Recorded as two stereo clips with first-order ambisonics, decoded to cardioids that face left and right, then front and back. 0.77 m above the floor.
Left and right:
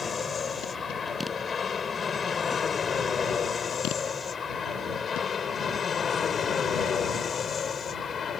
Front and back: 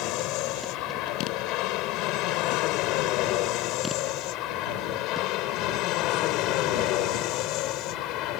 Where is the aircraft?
20° left; by 8.4 s 25° left.